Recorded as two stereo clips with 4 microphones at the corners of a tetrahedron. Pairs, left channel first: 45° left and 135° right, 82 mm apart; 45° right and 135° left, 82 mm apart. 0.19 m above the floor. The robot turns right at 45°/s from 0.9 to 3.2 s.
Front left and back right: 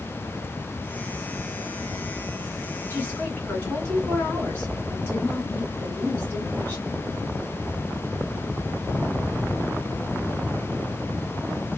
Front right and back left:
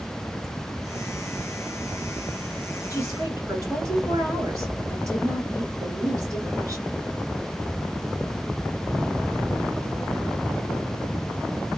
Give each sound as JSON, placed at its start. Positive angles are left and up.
{"t": 2.9, "sound": "a woman speaking", "azimuth_deg": 100, "distance_m": 2.0}